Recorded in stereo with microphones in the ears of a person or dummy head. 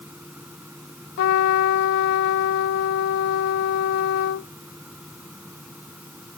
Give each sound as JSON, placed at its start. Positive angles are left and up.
{"t": 0.0, "sound": "a fan", "side_deg": -10}
{"t": 1.2, "sound": "a trumpet", "side_deg": 65}